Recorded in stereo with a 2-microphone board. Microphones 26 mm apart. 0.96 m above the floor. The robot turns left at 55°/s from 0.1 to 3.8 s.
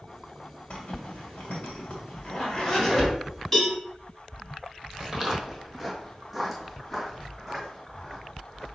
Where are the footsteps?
20° right (ahead or behind), 1.3 m; by 8.7 s 5° left (ahead or behind), 3 m.